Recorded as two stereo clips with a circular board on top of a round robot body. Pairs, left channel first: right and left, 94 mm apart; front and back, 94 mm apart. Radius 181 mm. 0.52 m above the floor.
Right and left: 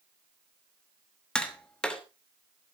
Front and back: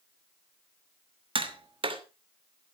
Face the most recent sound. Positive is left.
turn(degrees=-170)